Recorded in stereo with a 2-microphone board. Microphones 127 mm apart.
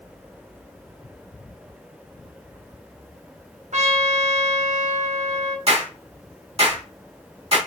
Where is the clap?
55° right (ahead or behind), 3 m.